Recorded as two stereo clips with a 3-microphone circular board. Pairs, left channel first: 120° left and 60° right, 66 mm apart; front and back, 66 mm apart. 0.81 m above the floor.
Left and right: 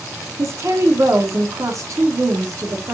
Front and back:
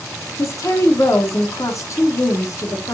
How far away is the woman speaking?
About 1.9 m.